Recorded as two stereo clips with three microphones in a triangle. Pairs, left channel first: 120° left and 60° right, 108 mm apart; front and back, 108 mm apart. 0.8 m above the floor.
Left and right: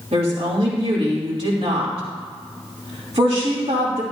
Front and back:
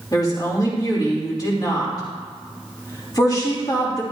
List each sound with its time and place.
0.1 s a woman speaking: 50° right, 2.5 m